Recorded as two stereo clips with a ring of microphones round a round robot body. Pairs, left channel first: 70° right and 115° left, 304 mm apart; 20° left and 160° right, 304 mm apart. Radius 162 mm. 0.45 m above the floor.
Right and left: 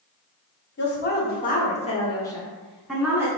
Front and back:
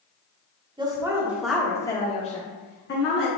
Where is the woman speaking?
90° right, 1.3 m; by 3.3 s 35° left, 1.4 m.